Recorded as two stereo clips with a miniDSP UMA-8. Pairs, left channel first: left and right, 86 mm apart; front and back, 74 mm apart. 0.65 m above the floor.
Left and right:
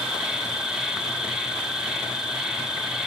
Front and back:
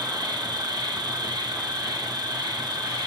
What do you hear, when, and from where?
0.0 s an insect: 170° right, 3 m